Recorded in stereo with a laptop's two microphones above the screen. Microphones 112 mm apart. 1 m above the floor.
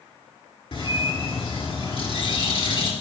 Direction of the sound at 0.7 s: 60° left (ahead or behind).